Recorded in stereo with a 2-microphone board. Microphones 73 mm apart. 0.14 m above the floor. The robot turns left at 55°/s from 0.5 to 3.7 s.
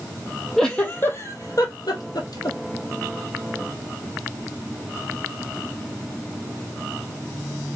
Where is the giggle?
5° left (ahead or behind), 1.0 m; by 2.6 s 60° left (ahead or behind), 1.0 m.